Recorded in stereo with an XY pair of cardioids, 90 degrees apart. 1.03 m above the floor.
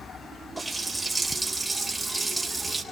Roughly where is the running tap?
Ahead.